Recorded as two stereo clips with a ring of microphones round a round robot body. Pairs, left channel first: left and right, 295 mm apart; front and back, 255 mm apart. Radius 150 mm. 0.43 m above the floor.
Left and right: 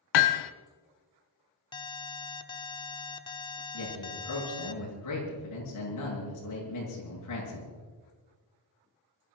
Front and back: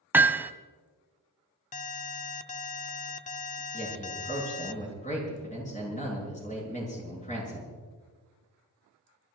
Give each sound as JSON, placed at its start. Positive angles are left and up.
{"t": 0.1, "sound": "hammering", "azimuth_deg": 95, "distance_m": 0.9}
{"t": 1.7, "sound": "an alarm", "azimuth_deg": 30, "distance_m": 0.9}
{"t": 3.7, "sound": "a man speaking", "azimuth_deg": 60, "distance_m": 8.0}